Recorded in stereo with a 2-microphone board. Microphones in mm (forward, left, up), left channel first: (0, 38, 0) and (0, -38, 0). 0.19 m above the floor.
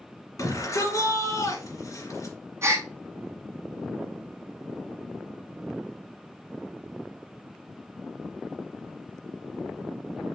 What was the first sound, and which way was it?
A shout, 50° left (ahead or behind).